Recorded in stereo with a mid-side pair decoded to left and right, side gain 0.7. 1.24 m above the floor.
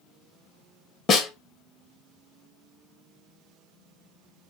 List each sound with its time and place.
1.1 s a snare drum: 40° left, 0.7 m